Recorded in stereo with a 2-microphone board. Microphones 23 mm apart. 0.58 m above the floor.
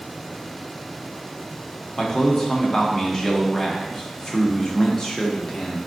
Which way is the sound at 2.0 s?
30° left (ahead or behind).